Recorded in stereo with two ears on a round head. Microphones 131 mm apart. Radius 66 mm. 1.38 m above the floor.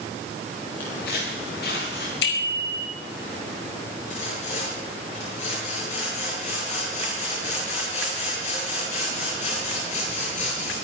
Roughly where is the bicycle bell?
Left.